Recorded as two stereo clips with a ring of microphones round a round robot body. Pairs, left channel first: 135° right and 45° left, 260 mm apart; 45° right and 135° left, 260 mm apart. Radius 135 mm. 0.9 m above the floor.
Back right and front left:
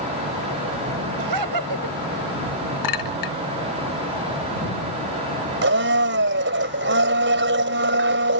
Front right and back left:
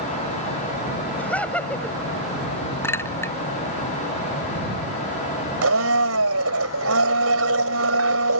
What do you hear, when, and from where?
1.2 s laughter: 40° left
2.8 s a clink: 125° right
5.6 s a blender: 95° left